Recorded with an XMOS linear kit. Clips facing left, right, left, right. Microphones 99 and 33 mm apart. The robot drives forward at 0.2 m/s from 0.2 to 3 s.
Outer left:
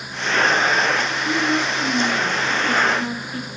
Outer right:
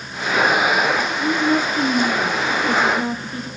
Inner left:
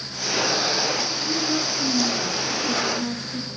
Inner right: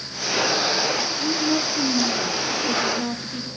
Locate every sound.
1.2 s a woman speaking: 40° right (ahead or behind), 1.5 m; by 3.5 s 35° right (ahead or behind), 1.8 m